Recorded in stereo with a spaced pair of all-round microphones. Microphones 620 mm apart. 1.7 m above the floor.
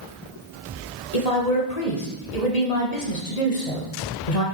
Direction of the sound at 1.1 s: 85° left.